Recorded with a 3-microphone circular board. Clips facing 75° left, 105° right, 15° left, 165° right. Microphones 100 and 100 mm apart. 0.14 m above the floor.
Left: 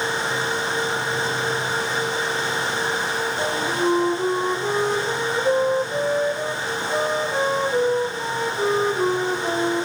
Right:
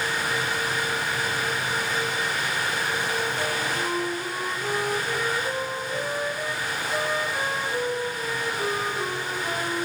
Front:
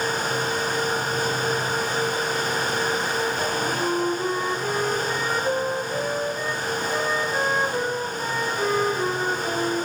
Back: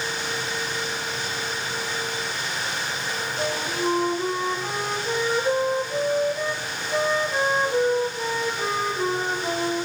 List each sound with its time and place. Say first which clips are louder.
3.4 s a flute: left 5 dB, front 2 dB; 110° left, 6 m